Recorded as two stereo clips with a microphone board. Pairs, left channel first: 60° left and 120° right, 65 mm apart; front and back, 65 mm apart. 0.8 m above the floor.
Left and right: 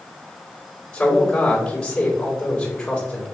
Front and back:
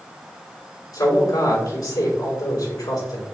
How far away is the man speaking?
About 3.5 m.